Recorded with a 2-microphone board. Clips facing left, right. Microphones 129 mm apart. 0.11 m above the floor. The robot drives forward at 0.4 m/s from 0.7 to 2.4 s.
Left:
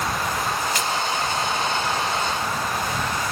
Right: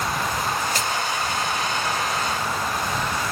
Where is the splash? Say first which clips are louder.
Left 1 dB; 40° right (ahead or behind), 1.6 m.